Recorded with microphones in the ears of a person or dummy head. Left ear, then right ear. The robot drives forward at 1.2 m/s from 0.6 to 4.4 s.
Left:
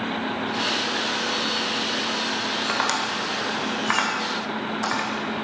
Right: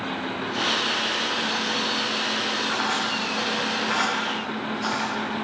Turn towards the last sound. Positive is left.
turn(degrees=55)  # may be behind; listen again after turning